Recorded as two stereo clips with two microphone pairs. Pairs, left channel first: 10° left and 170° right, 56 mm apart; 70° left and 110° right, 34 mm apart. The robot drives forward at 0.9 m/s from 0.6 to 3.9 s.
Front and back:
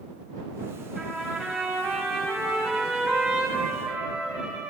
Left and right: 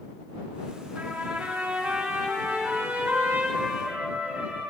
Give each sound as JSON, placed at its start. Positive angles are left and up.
{"t": 0.9, "sound": "a trumpet", "azimuth_deg": -75, "distance_m": 7.0}